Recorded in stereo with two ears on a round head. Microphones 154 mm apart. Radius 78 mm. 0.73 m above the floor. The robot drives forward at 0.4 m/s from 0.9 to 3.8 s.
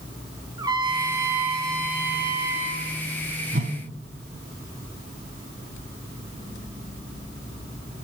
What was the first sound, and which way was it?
A trumpet, 25° right (ahead or behind).